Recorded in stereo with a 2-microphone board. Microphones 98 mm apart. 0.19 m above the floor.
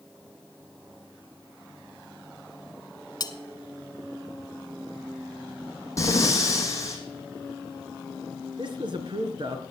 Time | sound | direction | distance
3.2 | cutlery clinking | 45° left (ahead or behind) | 1.0 m
6.0 | breathing | 30° left (ahead or behind) | 2.5 m
8.6 | a man speaking | 55° right (ahead or behind) | 2.5 m